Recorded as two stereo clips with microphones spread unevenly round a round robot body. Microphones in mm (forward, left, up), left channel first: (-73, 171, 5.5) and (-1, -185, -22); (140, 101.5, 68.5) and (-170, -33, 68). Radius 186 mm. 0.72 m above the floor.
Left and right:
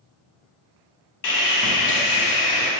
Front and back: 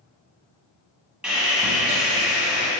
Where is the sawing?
115° left, 0.8 m.